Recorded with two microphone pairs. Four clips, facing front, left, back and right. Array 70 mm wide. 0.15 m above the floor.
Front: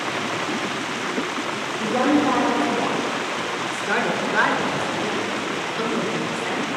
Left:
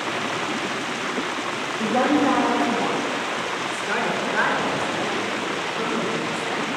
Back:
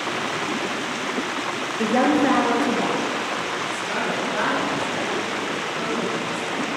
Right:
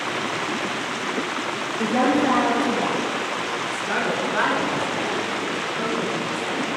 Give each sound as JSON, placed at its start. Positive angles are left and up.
{"t": 1.8, "sound": "a woman speaking", "azimuth_deg": -165, "distance_m": 2.5}
{"t": 3.7, "sound": "a woman speaking", "azimuth_deg": -10, "distance_m": 1.4}